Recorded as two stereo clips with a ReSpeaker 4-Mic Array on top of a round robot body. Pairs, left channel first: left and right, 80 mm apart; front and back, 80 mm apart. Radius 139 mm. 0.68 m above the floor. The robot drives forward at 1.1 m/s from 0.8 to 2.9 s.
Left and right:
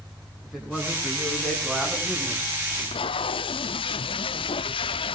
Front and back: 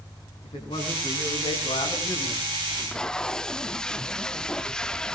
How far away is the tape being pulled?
About 0.5 m.